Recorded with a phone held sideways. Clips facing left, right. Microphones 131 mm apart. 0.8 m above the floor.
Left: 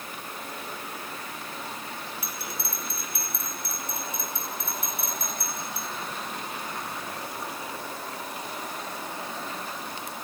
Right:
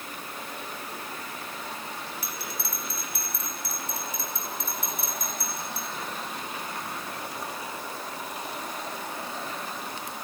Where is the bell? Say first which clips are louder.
Even; 60° left (ahead or behind), 5.5 m.